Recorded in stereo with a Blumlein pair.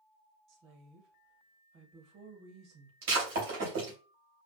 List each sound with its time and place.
0.5 s a woman speaking: 35° right, 1.6 m
3.0 s breaking glass: 50° right, 2.5 m